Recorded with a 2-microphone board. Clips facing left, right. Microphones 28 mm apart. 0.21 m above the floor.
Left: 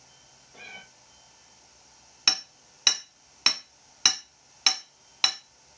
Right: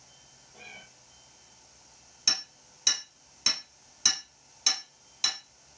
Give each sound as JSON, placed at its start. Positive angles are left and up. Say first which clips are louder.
{"t": 0.5, "sound": "a cat meowing", "louder": "left 3 dB", "side_deg": 40, "distance_m": 0.9}
{"t": 2.3, "sound": "hammering", "louder": "left 4 dB", "side_deg": 45, "distance_m": 1.1}